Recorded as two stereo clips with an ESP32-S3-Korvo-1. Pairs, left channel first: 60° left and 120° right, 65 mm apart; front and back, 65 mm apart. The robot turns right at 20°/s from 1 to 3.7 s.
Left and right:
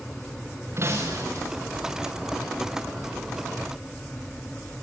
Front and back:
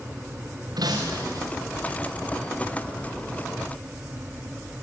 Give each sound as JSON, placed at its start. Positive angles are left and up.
{"t": 0.8, "sound": "breaking glass", "azimuth_deg": -170, "distance_m": 4.5}